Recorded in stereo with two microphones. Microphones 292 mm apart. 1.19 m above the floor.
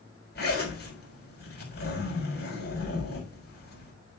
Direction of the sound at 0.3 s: 35° left (ahead or behind).